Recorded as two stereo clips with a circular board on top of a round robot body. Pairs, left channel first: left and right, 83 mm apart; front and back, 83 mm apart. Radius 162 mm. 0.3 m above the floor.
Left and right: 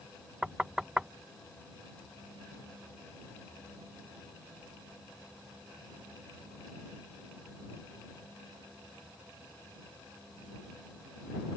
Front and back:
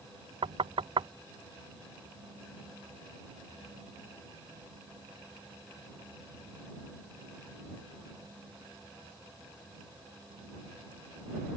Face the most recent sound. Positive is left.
turn(degrees=-170)